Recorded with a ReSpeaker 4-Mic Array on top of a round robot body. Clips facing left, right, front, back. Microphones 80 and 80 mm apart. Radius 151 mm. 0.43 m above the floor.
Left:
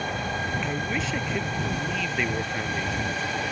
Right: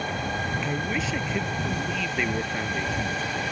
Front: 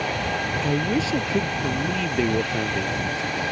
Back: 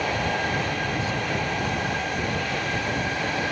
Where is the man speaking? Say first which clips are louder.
Even, front 4 dB; straight ahead.